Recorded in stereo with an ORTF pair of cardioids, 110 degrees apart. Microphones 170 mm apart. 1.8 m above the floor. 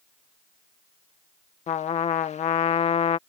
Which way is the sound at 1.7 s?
40° left.